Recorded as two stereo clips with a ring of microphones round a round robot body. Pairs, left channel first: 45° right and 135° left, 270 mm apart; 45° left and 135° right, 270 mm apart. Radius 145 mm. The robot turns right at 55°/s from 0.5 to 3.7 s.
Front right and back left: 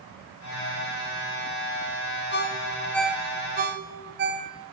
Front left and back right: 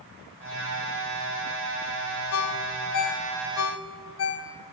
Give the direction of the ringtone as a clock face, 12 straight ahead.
12 o'clock.